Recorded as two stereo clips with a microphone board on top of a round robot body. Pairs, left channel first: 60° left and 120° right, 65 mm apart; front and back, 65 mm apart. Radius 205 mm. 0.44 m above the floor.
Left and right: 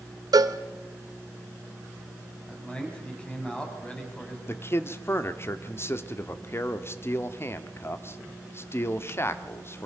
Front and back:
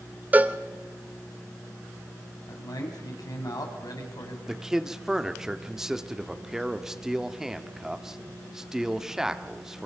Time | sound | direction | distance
0.3 | a cowbell | 115° right | 0.9 m
2.5 | a man speaking | 15° right | 4 m
4.5 | a man speaking | 100° left | 1.4 m